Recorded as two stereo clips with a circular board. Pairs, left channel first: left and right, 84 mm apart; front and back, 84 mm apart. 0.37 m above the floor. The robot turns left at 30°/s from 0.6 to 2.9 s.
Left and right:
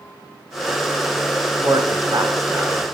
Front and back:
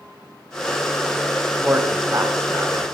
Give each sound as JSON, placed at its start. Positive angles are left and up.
{"t": 1.6, "sound": "a man speaking", "azimuth_deg": -110, "distance_m": 3.5}